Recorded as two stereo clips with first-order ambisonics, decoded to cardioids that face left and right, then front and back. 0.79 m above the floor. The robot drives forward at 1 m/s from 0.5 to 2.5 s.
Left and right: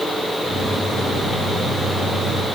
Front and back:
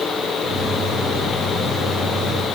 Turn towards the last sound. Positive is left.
No sound to turn to.